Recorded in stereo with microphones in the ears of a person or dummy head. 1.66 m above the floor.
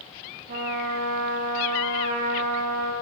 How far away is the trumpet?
About 0.8 m.